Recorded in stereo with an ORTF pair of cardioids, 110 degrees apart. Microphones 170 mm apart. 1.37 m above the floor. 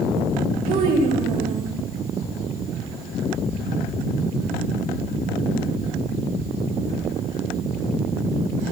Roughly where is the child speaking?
Ahead right.